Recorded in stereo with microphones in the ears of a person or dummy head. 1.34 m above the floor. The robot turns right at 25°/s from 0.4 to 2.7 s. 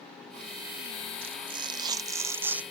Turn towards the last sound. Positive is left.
turn(degrees=-10)